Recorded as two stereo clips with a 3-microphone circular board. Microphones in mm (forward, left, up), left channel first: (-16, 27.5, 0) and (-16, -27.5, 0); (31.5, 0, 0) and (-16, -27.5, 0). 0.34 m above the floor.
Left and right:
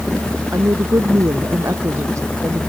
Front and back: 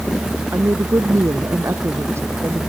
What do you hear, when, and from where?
0.5 s a woman speaking: 120° right; by 2.6 s 115° right